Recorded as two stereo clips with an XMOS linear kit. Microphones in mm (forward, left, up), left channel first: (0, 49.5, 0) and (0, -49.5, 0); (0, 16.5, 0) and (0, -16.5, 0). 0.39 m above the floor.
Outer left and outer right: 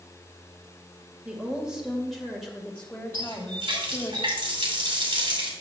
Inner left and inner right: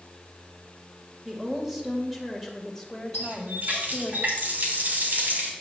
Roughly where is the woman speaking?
Centre.